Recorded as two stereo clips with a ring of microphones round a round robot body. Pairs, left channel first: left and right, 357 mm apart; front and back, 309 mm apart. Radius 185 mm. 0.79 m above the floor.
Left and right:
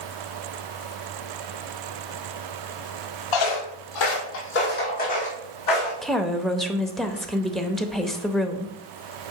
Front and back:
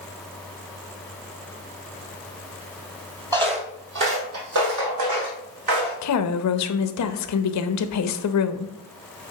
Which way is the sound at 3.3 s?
105° left.